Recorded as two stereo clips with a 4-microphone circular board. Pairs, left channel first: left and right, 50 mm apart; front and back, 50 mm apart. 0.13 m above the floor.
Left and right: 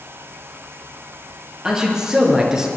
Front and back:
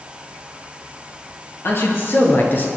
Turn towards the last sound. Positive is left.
turn(degrees=-20)